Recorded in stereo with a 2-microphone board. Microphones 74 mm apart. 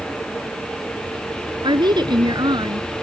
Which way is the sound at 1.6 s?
75° right (ahead or behind).